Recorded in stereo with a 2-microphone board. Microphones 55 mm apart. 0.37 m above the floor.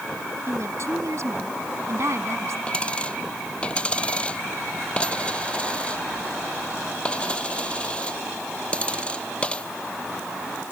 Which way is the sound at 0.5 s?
65° right (ahead or behind).